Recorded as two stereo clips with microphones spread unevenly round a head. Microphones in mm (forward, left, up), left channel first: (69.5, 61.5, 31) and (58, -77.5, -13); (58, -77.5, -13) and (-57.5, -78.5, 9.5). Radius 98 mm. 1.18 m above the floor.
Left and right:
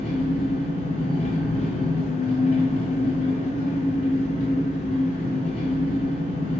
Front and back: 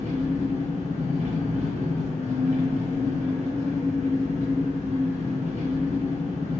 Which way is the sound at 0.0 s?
110° left.